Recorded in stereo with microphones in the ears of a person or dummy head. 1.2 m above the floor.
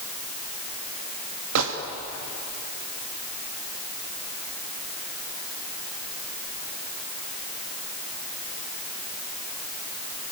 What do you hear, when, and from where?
1.6 s a gunshot: 75° right (ahead or behind), 2.5 m